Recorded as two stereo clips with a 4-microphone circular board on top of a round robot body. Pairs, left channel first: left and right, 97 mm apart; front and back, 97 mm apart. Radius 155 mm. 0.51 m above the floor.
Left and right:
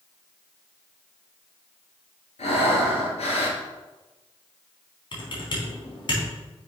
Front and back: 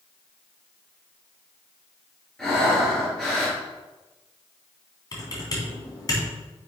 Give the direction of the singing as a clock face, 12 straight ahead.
I don't hear singing.